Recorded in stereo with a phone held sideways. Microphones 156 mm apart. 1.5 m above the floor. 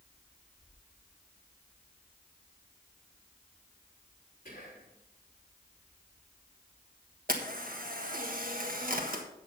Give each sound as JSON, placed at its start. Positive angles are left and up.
{"t": 4.5, "sound": "whispering", "side_deg": 55, "distance_m": 4.0}
{"t": 7.3, "sound": "a camera shutter", "side_deg": -65, "distance_m": 1.5}